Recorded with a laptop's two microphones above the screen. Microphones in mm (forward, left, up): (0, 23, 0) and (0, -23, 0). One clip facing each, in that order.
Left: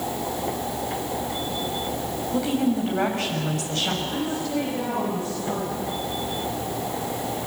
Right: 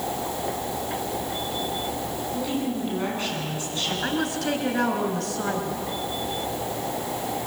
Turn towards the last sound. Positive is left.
turn(degrees=-75)  # may be behind; listen again after turning